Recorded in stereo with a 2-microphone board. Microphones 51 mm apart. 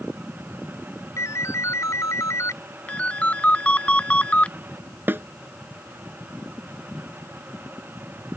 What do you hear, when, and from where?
1.2 s a ringtone: 75° left (ahead or behind)
2.9 s a ringtone: 25° left (ahead or behind)
5.1 s a snare drum: 45° right (ahead or behind)